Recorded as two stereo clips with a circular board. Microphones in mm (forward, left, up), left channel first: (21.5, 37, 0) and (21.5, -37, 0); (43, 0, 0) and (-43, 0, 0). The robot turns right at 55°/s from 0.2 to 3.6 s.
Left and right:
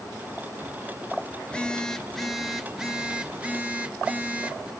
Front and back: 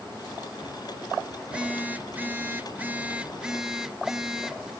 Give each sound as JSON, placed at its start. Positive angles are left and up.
{"t": 1.4, "sound": "a phone buzzing", "azimuth_deg": 125, "distance_m": 0.5}